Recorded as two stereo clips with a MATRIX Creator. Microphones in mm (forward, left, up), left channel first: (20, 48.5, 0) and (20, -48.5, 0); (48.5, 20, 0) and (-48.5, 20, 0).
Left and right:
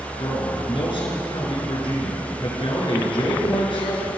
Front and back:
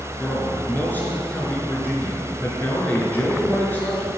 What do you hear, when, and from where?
0.2 s a man speaking: 70° left, 4 m